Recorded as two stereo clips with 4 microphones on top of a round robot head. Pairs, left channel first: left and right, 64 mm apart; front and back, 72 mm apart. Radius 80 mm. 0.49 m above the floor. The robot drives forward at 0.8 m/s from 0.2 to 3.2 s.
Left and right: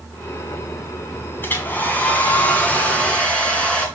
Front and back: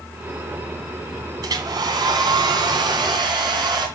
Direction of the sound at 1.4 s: 150° left.